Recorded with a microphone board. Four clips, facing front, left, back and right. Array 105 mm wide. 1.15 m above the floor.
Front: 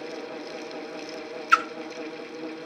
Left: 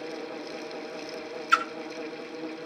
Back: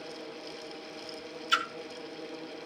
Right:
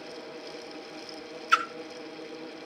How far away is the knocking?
No knocking in this recording.